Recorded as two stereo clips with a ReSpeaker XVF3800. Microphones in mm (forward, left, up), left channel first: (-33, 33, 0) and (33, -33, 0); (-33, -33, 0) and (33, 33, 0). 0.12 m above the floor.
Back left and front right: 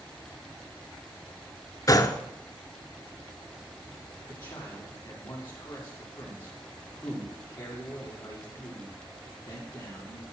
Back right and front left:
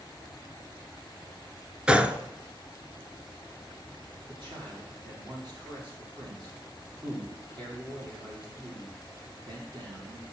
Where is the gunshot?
120° left, 0.7 m.